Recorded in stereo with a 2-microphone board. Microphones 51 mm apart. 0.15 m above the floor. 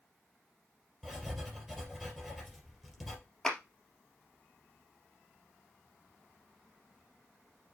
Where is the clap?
10° left (ahead or behind), 2.5 m.